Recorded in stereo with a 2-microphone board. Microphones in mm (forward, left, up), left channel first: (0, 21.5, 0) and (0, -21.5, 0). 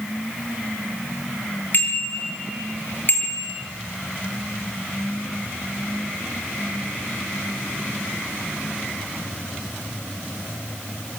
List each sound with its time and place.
1.7 s a bicycle bell: 40° left (ahead or behind), 8.5 m; by 3.5 s 45° left (ahead or behind), 7.5 m